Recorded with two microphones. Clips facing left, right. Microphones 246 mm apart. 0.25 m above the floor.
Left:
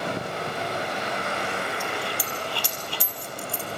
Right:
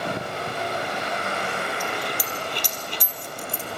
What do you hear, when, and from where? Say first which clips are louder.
1.8 s a dropped coin: right 1 dB; 20° right (ahead or behind), 3 m